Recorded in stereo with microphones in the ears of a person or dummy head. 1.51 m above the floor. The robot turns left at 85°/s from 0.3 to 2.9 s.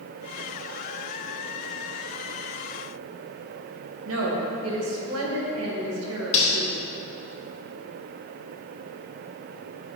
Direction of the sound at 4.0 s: 85° right.